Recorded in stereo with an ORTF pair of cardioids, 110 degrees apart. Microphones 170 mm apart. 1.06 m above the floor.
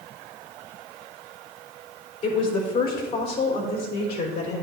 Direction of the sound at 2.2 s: 50° left.